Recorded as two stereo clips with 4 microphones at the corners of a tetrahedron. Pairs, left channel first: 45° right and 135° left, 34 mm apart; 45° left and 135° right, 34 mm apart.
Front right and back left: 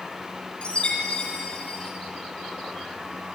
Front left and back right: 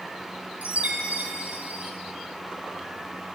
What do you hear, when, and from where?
0.6 s a chime: 100° right, 4 m